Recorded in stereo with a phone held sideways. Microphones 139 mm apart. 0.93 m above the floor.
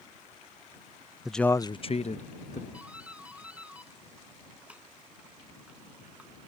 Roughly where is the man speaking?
Centre.